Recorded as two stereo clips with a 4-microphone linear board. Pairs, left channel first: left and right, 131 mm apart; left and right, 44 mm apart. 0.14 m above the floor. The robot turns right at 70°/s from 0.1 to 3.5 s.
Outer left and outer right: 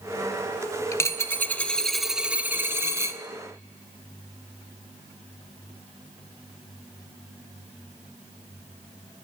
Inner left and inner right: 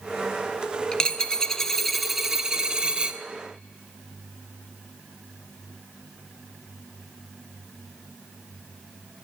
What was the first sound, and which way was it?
A dropped coin, 25° left (ahead or behind).